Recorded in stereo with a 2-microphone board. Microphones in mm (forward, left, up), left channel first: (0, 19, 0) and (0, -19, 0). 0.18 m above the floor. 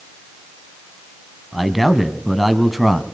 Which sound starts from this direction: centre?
A man speaking, at 1.5 s.